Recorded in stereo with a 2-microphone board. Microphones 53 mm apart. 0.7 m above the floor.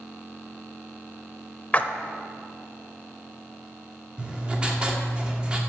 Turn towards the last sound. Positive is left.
turn(degrees=-20)  # may be behind; listen again after turning